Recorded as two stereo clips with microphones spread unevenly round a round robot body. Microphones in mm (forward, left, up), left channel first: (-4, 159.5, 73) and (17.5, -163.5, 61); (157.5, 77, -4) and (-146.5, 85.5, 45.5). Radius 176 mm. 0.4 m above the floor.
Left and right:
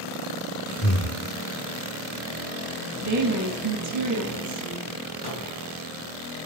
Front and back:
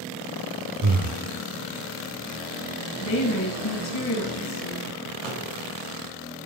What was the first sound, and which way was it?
Breathing, 145° left.